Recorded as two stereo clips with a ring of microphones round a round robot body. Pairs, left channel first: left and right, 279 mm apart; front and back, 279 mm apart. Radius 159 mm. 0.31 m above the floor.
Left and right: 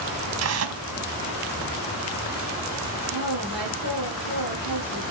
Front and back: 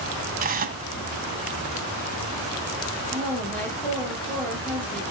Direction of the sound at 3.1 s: 85° right.